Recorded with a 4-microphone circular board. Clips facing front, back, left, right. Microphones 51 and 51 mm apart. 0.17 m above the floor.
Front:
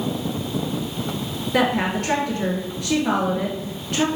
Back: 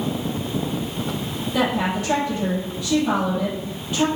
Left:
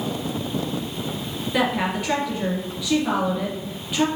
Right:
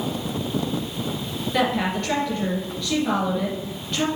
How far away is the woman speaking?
About 2.5 m.